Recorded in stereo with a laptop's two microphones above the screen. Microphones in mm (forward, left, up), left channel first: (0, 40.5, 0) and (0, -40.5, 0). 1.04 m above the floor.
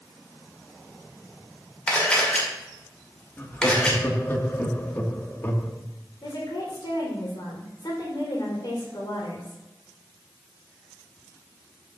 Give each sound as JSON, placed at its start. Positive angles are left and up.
{"t": 1.9, "sound": "a camera shutter", "side_deg": 15, "distance_m": 2.0}
{"t": 3.4, "sound": "laughter", "side_deg": 30, "distance_m": 2.0}
{"t": 6.2, "sound": "a woman speaking", "side_deg": 70, "distance_m": 4.0}